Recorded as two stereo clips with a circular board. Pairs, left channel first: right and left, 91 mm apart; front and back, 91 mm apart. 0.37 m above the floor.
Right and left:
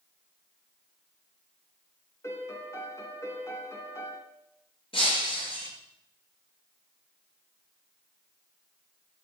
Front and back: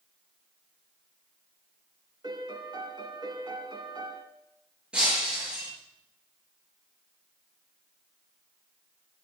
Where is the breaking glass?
100° right, 4.5 m.